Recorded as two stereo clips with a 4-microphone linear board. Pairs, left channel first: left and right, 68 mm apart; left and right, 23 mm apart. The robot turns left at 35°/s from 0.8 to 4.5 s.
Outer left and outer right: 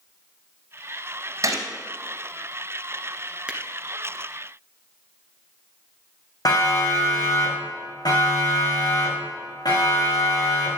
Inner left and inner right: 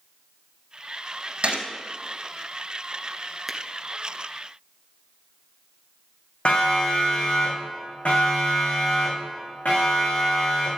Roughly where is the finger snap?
Centre.